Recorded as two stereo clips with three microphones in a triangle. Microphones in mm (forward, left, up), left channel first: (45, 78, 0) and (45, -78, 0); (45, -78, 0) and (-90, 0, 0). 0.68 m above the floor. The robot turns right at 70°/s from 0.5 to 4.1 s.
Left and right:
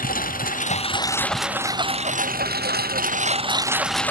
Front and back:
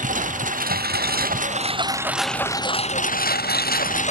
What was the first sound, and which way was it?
A lawn mower, 115° left.